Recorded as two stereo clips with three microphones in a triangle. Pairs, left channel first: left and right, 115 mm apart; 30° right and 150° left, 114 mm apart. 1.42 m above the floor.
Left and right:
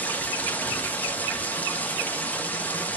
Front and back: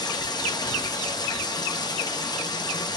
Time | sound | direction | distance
0.0 | running water | 15° left | 1.0 m